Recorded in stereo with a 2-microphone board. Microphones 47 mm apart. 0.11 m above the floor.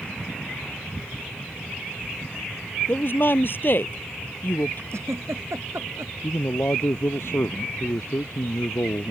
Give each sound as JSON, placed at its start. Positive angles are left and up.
{"t": 2.9, "sound": "a woman speaking", "side_deg": 50}
{"t": 4.9, "sound": "a giggle", "side_deg": -75}
{"t": 6.2, "sound": "a man speaking", "side_deg": 65}